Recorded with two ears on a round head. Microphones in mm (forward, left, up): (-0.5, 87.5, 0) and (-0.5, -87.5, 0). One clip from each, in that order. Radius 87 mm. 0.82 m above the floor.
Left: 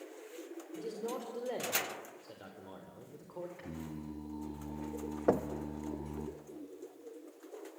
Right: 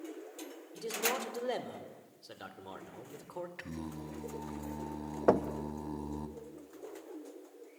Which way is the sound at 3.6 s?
60° right (ahead or behind).